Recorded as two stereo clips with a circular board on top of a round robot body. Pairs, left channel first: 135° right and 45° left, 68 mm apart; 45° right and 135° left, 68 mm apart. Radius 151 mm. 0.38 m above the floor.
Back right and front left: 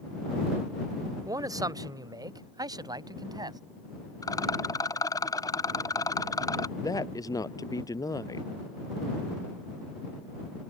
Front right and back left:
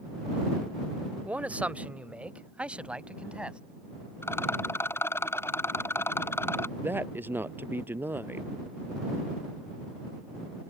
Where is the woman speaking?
165° right.